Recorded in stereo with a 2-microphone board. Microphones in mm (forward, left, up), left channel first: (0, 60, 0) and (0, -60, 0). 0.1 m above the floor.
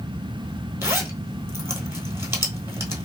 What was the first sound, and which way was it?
A zipper, 20° right (ahead or behind).